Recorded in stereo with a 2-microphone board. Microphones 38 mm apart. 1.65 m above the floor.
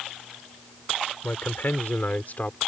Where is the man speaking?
55° left (ahead or behind); by 2.6 s 40° left (ahead or behind).